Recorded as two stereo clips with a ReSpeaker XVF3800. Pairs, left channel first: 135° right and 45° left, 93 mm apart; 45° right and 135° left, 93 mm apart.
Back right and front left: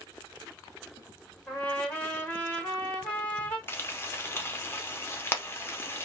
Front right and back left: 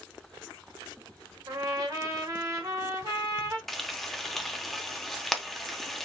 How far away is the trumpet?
About 1.5 m.